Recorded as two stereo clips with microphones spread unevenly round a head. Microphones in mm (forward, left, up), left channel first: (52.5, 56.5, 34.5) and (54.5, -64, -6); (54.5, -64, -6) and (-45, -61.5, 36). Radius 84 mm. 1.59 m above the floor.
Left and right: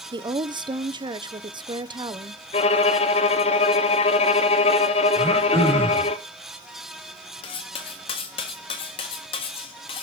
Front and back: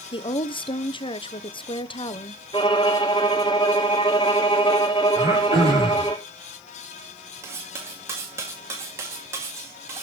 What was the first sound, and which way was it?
A woman speaking, 35° right.